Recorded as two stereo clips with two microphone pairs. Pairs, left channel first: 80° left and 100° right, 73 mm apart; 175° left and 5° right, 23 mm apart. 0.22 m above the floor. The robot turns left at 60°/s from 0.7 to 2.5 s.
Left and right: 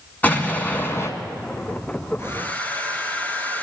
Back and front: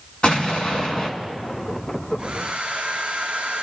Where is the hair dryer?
30° left, 1.6 m; by 3.6 s 10° left, 1.6 m.